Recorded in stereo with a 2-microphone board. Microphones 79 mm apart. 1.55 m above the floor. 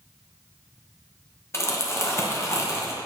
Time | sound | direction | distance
1.5 | crumpling | 35° left (ahead or behind) | 0.9 m